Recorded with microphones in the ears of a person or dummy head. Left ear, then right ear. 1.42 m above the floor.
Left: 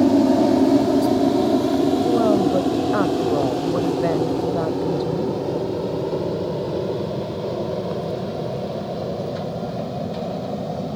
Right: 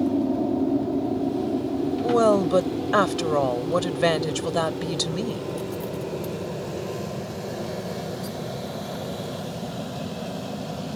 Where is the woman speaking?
75° right (ahead or behind).